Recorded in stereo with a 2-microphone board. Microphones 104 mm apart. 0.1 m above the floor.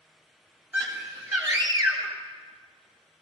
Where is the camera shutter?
No camera shutter in this recording.